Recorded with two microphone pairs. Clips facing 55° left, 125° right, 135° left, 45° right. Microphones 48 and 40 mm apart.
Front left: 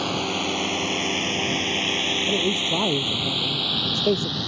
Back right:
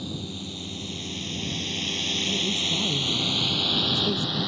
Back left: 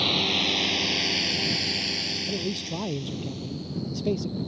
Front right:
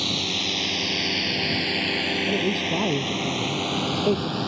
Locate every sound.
0.0 s a drone: 60° left; by 4.5 s 40° right
2.2 s a man speaking: 25° left